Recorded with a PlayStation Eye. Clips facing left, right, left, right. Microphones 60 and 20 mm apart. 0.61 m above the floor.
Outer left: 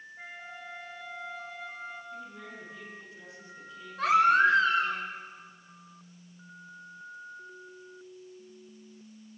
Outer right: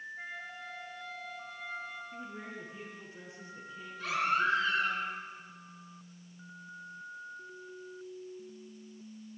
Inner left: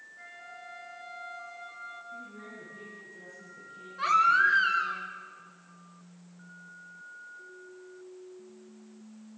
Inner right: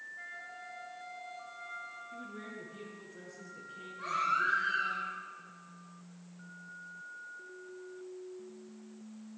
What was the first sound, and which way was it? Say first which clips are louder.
A flute: outer right 1 dB, inner right 1 dB; 5° left (ahead or behind).